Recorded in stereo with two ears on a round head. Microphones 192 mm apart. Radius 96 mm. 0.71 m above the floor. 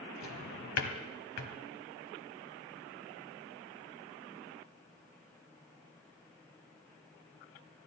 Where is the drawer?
80° left, 1.6 m.